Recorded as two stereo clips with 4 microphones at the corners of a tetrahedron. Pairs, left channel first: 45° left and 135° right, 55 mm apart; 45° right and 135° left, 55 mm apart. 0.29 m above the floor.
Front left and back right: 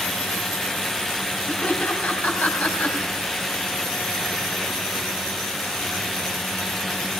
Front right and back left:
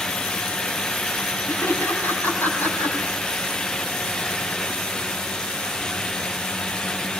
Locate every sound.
1.5 s laughter: 10° right, 2.5 m